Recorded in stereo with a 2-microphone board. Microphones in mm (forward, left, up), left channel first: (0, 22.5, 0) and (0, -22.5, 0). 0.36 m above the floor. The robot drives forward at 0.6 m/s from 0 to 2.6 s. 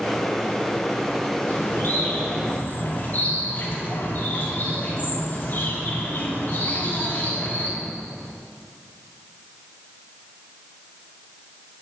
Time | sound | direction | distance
1.5 | a bird | 45° left (ahead or behind) | 3 m